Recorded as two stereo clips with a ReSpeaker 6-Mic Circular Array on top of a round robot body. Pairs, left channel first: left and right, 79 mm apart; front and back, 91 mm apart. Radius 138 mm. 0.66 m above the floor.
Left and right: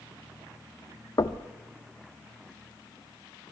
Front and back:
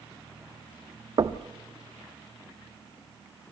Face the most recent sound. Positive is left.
turn(degrees=135)